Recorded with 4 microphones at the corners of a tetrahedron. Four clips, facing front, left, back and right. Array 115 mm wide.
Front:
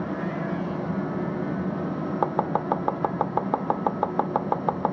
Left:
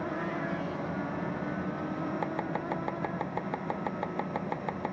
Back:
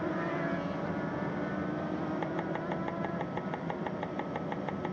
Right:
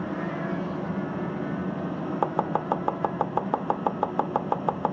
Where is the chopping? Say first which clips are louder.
Right 7 dB, front 10 dB; 35° right.